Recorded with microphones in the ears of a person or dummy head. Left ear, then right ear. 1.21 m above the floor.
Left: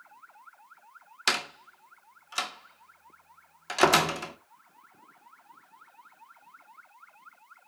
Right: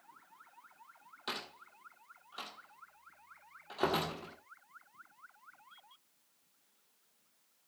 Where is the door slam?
65° left (ahead or behind), 2.0 m.